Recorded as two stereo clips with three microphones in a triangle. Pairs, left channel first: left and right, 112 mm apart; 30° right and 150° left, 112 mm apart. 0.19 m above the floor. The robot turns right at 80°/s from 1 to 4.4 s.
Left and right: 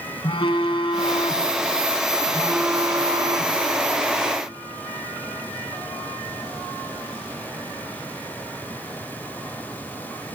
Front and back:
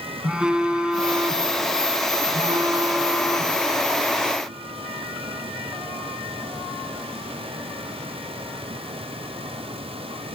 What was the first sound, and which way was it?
A phone buzzing, 70° left.